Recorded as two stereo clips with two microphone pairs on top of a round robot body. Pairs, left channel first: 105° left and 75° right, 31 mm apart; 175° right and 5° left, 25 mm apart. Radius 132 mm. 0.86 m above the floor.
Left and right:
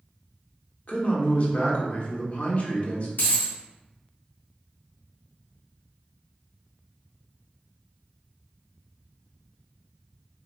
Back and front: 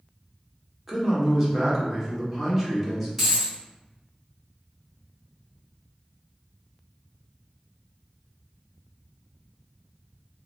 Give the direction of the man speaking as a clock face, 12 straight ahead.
9 o'clock.